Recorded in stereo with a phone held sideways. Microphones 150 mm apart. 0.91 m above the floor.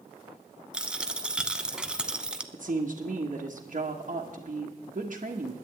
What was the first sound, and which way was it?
A dropped coin, 5° right (ahead or behind).